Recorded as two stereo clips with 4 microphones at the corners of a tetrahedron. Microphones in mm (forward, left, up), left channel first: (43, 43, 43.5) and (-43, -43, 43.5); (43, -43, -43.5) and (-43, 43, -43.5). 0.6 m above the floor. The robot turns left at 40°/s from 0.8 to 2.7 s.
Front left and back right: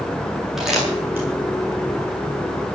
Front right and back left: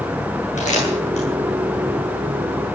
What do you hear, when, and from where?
0.6 s crumpling: 50° right, 9 m; by 1.3 s 65° right, 9 m